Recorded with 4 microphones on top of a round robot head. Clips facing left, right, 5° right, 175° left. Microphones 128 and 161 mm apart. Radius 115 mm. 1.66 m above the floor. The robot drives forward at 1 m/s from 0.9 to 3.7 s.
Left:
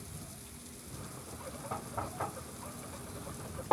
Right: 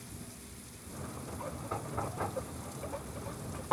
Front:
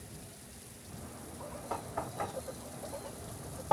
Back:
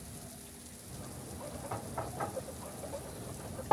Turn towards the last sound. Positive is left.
turn(degrees=95)